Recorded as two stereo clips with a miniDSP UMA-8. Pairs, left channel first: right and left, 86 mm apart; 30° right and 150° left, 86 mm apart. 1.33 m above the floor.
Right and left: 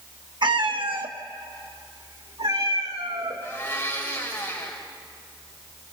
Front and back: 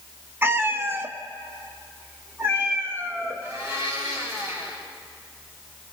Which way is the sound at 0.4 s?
90° left.